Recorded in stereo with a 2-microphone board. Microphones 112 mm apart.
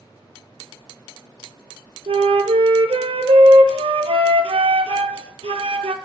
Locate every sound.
2.1 s a flute: 65° right (ahead or behind), 0.6 m